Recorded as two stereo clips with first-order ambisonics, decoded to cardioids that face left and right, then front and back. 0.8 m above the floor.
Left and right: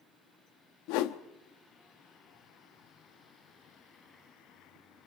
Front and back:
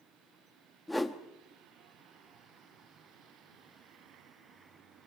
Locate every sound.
0.9 s a whoosh: 85° left, 0.9 m